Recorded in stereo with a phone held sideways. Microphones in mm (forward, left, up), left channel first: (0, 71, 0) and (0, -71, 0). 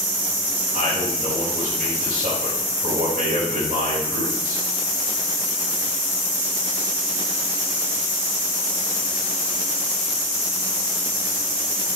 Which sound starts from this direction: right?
A man speaking, at 0.7 s.